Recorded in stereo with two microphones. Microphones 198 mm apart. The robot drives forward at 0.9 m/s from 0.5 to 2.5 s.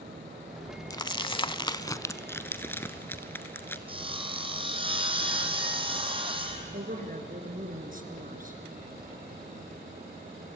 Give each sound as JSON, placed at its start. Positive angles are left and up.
{"t": 0.9, "sound": "crumpling", "side_deg": 20, "distance_m": 0.7}
{"t": 3.9, "sound": "sawing", "side_deg": -25, "distance_m": 2.0}
{"t": 6.7, "sound": "a woman speaking", "side_deg": -45, "distance_m": 3.0}